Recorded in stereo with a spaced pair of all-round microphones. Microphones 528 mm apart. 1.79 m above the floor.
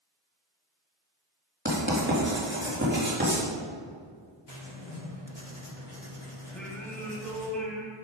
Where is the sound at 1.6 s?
20° right (ahead or behind), 3.5 m.